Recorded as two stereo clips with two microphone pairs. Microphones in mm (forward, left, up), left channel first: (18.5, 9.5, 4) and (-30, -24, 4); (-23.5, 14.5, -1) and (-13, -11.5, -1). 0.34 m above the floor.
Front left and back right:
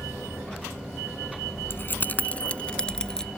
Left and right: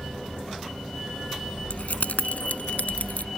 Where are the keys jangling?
85° left; by 3.3 s 115° left.